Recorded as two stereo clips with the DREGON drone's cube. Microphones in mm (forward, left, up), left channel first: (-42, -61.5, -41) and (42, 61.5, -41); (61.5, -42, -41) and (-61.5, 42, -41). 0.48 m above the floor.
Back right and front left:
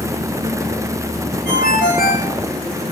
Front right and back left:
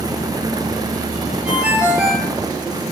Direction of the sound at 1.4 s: 130° right.